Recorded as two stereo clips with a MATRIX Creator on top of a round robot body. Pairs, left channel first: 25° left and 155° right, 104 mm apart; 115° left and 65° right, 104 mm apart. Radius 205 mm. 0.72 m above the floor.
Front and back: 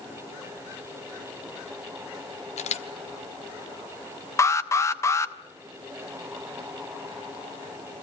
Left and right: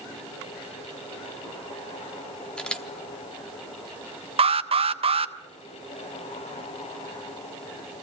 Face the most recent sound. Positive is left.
turn(degrees=-40)